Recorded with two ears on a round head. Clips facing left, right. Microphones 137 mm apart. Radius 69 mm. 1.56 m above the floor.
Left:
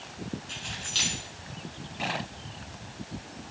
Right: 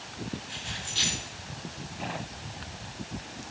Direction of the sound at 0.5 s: 75° left (ahead or behind).